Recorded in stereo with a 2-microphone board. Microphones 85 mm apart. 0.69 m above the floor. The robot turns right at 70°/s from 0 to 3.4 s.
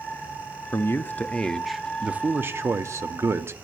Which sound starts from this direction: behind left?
A man speaking, at 0.7 s.